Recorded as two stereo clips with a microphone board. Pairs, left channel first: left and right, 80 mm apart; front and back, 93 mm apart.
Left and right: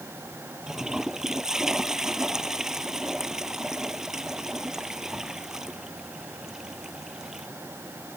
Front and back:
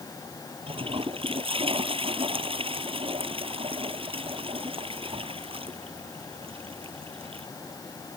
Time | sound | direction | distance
0.7 | a toilet flushing | 175° right | ?